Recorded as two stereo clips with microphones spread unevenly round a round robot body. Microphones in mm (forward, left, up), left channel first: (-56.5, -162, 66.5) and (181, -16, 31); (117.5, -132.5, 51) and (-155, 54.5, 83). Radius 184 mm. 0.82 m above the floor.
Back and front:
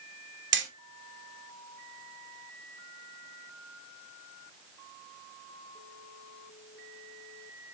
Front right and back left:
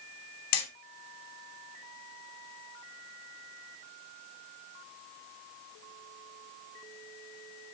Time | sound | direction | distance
0.5 | hammering | 15° right | 2.5 m